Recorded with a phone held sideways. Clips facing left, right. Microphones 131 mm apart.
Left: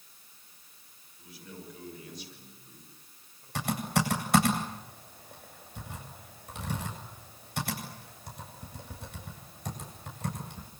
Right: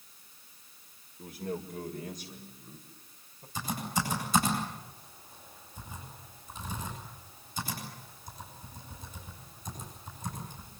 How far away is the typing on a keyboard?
About 8 m.